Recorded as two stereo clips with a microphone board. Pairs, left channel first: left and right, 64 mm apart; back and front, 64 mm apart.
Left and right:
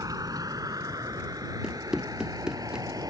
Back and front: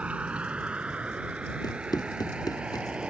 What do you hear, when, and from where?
0.0 s a vehicle: 70° right; by 3.1 s 75° right
1.6 s running footsteps: 170° right